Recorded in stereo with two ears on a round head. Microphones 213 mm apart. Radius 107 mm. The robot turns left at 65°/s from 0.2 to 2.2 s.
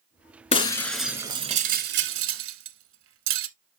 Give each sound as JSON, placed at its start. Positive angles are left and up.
{"t": 0.5, "sound": "breaking glass", "side_deg": 25, "distance_m": 1.2}